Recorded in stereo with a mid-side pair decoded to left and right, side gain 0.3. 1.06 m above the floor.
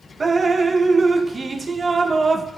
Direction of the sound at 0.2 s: 45° right.